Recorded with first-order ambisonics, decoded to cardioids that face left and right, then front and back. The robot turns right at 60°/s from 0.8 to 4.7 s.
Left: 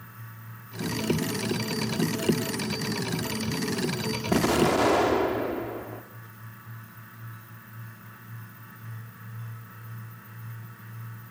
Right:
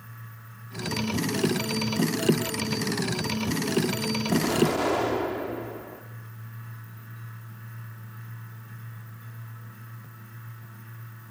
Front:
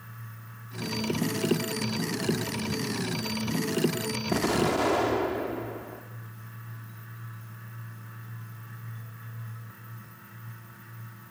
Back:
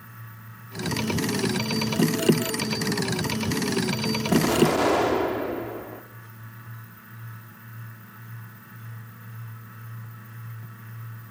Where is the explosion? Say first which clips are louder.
Left 3 dB, back 5 dB; 115° left, 1.0 m; by 6.0 s 140° left, 1.0 m.